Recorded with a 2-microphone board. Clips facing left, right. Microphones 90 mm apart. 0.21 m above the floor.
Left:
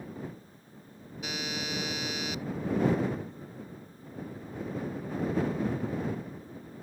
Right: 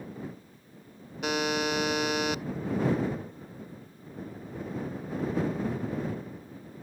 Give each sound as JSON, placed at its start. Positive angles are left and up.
{"t": 1.2, "sound": "a buzzer", "side_deg": -65}